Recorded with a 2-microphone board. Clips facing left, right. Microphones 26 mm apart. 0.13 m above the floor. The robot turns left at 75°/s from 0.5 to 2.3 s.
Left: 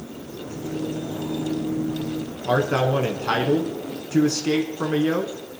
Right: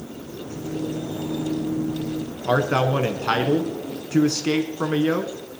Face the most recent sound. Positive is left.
turn(degrees=-15)  # may be behind; listen again after turning